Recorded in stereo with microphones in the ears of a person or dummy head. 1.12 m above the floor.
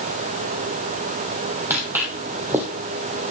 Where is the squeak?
I don't hear a squeak.